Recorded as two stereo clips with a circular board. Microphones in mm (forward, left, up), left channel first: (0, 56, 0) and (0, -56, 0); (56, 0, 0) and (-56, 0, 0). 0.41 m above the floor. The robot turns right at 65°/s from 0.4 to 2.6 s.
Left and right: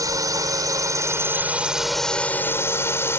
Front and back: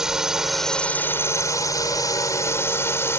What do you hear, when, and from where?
0.0 s a drone: 100° right; by 3.2 s 45° left